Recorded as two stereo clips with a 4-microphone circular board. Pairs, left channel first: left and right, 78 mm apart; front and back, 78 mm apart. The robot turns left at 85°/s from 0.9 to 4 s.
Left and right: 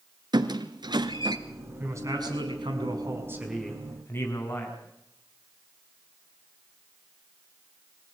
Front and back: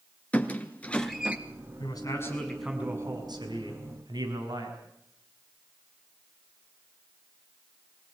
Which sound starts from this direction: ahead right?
A man speaking, at 1.8 s.